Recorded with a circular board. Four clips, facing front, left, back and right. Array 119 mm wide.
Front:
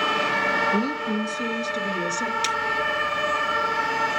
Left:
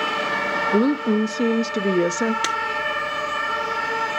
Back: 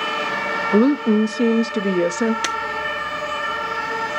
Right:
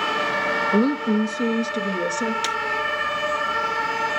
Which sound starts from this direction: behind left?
Breaking glass, at 2.4 s.